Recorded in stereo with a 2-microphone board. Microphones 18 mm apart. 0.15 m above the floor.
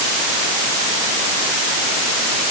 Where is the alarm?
No alarm in this recording.